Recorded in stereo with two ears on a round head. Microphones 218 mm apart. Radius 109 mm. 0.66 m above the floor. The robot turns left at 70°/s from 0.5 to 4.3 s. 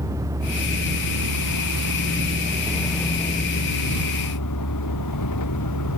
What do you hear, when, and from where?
0.0 s a vehicle: 15° right; by 6.0 s 80° left